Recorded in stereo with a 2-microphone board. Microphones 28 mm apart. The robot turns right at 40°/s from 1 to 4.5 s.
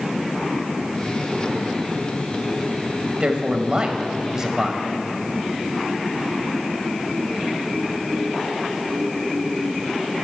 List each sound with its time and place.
3.2 s a man speaking: 80° right, 1.1 m; by 4.8 s 30° right, 1.1 m